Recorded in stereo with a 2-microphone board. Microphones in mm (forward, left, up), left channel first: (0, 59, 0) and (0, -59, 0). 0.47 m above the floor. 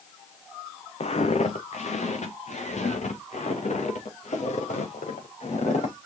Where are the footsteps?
65° left (ahead or behind), 1.6 m; by 6.0 s 80° left, 4 m.